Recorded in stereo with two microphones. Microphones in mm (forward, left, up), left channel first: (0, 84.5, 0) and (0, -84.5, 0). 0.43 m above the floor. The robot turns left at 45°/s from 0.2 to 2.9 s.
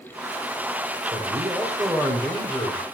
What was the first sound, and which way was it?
A man speaking, 140° right.